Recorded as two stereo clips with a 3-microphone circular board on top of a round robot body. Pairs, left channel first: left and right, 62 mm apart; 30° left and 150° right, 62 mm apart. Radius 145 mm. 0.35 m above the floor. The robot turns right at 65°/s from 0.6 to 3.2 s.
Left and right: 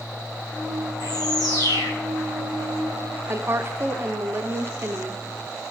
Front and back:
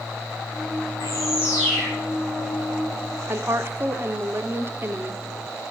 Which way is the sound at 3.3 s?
120° right.